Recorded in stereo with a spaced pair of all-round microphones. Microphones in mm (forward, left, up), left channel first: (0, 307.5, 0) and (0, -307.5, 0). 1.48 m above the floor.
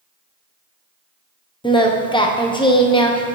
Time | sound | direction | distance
1.6 | singing | 10° left (ahead or behind) | 0.6 m